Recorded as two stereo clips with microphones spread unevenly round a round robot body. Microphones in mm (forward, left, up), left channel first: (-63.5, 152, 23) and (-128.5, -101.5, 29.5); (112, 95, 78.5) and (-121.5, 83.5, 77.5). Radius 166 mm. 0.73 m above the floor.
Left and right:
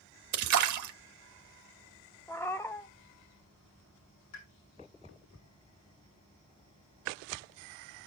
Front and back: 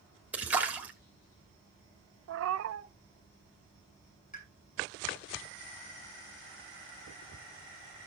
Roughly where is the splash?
Right.